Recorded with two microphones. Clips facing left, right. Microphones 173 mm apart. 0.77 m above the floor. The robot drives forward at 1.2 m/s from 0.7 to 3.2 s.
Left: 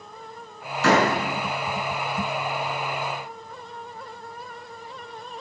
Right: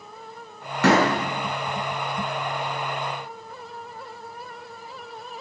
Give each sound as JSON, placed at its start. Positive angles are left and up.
{"t": 0.8, "sound": "a door slam", "side_deg": -70, "distance_m": 6.0}